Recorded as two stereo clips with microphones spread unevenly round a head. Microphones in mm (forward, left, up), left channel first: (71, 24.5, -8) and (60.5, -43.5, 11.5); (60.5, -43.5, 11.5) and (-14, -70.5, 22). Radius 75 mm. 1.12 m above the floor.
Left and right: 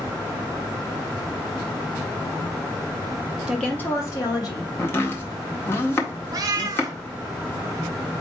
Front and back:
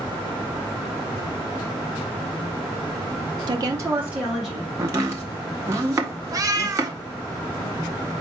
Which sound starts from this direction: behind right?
A cat meowing, at 6.3 s.